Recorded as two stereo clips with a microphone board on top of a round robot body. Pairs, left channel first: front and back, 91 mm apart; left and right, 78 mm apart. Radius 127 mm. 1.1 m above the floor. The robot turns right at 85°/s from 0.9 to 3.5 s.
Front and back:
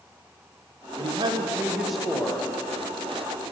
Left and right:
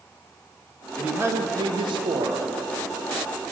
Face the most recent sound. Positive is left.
turn(degrees=45)